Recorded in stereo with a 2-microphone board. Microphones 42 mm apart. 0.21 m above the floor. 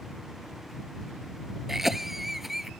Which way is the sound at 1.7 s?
10° right (ahead or behind).